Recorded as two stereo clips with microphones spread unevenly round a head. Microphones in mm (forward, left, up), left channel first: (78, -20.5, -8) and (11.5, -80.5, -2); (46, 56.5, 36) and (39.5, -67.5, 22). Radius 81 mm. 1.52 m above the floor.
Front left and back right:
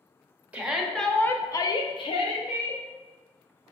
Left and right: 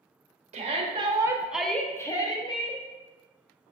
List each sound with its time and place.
0.5 s a shout: 60° right, 0.8 m; by 2.8 s 40° left, 1.0 m